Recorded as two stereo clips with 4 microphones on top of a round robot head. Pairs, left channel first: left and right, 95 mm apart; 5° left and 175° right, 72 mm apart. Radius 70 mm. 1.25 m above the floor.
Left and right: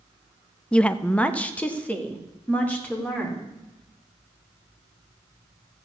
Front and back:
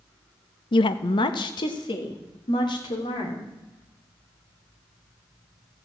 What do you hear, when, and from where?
0.7 s a woman speaking: 10° left, 0.5 m; by 3.5 s 15° left, 3.5 m